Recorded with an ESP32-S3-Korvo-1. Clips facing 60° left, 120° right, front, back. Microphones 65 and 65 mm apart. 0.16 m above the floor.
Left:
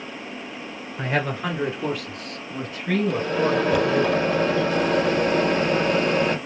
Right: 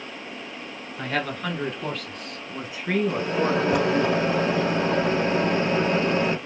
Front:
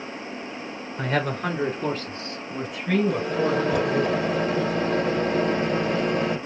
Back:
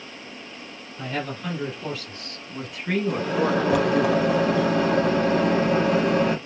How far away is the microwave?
About 3 m.